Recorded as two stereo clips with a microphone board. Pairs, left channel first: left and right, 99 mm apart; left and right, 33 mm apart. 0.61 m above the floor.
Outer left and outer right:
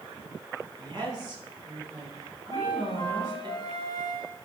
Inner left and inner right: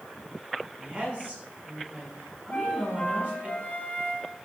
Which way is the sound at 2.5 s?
45° left (ahead or behind).